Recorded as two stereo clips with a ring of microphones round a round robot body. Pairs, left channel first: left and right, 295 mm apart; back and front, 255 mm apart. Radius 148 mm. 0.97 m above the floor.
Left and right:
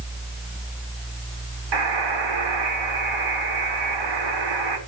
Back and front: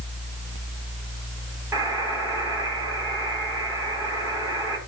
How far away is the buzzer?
About 5 m.